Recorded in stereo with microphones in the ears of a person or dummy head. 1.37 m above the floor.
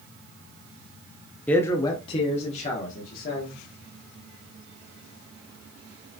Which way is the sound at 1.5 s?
10° left (ahead or behind).